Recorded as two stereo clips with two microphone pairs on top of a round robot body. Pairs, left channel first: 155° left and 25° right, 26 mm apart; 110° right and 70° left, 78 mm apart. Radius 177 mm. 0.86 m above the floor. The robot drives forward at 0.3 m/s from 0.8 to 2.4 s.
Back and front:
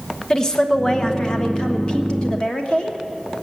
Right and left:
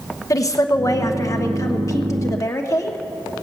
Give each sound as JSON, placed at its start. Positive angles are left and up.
{"t": 0.3, "sound": "a woman speaking", "azimuth_deg": -140, "distance_m": 1.4}